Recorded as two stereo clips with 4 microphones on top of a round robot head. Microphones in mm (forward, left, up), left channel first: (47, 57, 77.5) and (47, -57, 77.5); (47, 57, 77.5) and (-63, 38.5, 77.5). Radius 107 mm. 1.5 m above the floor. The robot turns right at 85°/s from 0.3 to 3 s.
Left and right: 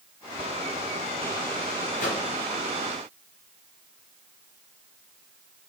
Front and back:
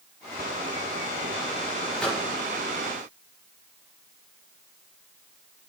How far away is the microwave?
About 1.1 m.